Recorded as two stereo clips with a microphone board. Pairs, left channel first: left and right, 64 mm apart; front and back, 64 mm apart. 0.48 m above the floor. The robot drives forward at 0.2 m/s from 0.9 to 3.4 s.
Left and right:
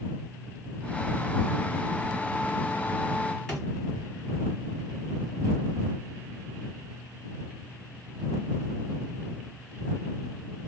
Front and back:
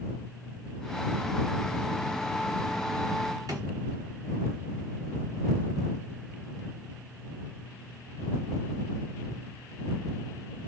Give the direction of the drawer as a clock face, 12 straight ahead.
6 o'clock.